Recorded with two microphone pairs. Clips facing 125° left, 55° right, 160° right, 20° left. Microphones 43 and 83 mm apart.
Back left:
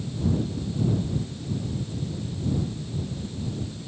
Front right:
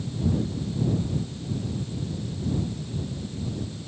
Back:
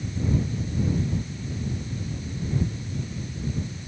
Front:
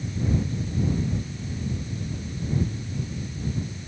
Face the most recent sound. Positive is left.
No sound to turn to.